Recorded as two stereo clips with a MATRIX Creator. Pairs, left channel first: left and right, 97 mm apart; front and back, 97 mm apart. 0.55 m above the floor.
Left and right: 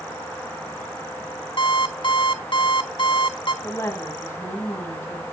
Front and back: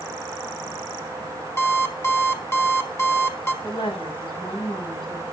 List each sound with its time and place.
1.6 s an alarm clock: 65° left, 1.5 m
3.6 s a woman speaking: 25° left, 5 m